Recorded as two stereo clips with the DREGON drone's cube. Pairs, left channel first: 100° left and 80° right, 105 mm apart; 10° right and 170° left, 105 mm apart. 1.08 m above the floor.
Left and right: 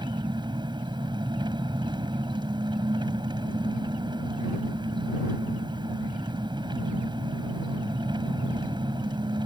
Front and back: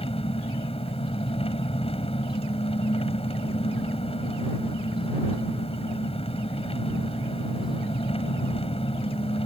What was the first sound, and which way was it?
An engine running, 35° right.